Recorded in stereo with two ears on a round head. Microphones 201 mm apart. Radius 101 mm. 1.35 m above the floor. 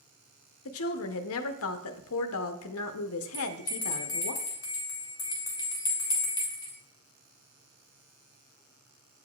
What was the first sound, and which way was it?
A woman speaking, 70° left (ahead or behind).